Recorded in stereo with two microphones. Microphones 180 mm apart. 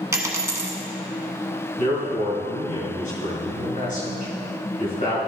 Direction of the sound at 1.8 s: 45° left (ahead or behind).